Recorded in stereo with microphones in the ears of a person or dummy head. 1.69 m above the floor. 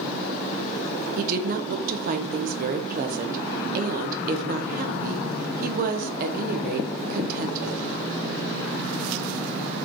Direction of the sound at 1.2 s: 50° right (ahead or behind).